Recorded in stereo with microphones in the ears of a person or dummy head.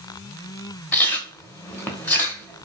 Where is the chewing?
15° left (ahead or behind), 0.8 m.